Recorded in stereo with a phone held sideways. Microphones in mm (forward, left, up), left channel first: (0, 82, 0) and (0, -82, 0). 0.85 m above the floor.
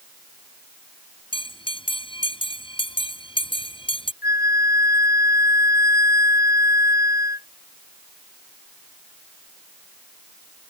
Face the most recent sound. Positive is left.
turn(degrees=75)  # may be behind; listen again after turning